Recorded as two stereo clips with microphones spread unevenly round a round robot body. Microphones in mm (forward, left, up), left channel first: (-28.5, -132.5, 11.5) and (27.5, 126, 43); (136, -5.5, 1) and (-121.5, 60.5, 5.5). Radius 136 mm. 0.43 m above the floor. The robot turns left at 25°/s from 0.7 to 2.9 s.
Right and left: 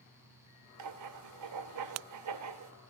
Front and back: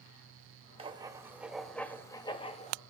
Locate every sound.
0.8 s writing: 95° left, 1.0 m; by 2.7 s 50° left, 1.0 m